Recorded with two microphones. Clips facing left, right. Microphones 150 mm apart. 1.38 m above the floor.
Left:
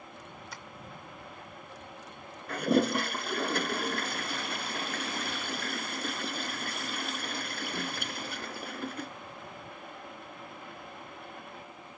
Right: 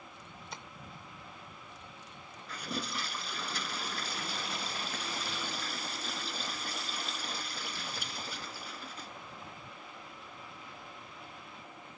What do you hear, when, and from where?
0.5 s tapping: 25° right (ahead or behind)
2.5 s a toilet flushing: 60° left (ahead or behind)